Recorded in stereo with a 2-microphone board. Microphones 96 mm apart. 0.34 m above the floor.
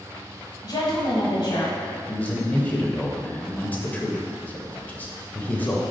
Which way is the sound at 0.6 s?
45° left (ahead or behind).